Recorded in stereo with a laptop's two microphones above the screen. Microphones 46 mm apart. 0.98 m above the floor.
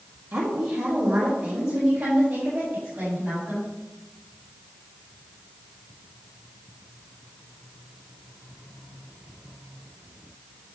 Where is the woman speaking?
80° right, 1.3 m; by 3.7 s 85° right, 6.5 m.